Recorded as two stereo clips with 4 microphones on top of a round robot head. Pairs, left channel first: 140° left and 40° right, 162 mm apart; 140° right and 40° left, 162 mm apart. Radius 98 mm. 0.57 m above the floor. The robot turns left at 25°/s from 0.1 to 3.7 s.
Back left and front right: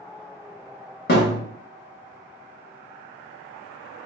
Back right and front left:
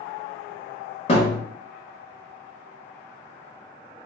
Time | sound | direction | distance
1.1 | a thud | 165° left | 1.0 m